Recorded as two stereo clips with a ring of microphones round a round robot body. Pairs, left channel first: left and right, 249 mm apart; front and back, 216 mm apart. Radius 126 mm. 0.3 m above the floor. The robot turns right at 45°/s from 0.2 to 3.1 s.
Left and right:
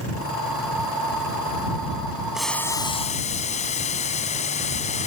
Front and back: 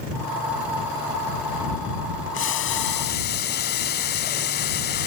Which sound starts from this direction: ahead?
Boiling, at 2.3 s.